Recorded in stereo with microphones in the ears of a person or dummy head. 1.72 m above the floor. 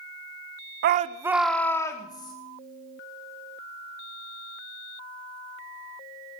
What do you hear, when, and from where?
0.8 s a shout: 55° right (ahead or behind), 0.7 m; by 2.3 s 25° left (ahead or behind), 2 m